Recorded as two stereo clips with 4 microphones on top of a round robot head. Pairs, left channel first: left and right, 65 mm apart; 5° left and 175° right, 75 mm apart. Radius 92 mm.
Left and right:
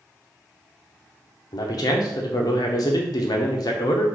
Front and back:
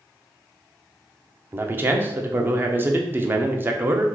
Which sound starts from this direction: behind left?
A man speaking, at 1.5 s.